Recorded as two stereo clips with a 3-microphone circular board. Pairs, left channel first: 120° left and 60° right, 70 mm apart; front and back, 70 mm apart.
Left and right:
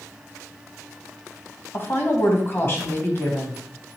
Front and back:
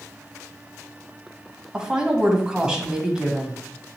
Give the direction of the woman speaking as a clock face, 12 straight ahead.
8 o'clock.